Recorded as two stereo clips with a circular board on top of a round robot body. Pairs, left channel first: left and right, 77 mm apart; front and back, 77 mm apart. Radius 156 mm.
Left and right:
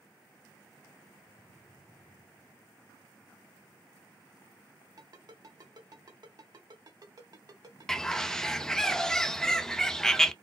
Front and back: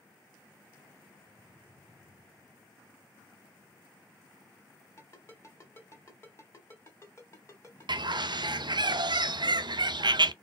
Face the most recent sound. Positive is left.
turn(degrees=175)